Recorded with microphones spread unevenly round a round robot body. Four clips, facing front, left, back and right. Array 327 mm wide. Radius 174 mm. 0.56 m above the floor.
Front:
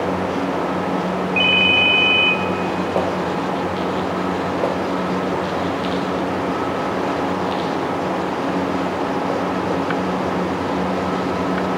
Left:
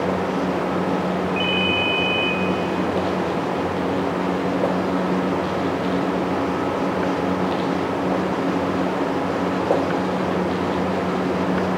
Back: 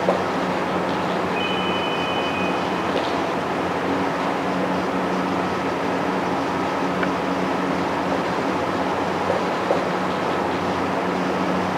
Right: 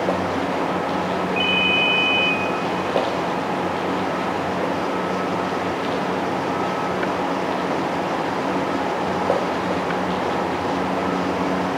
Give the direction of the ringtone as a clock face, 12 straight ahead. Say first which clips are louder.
Even, front 3 dB; 12 o'clock.